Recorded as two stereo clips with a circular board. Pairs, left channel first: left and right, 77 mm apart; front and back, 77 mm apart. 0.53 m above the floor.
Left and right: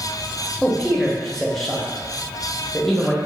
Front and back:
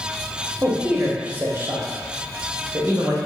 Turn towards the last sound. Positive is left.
turn(degrees=170)